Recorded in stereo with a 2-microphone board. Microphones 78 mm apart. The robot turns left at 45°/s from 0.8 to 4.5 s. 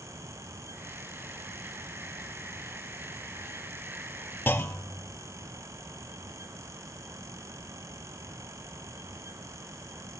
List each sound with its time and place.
4.5 s a clunk: 25° left (ahead or behind), 0.5 m